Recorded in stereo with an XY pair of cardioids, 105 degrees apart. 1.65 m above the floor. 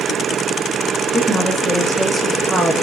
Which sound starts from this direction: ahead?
A woman speaking, at 1.1 s.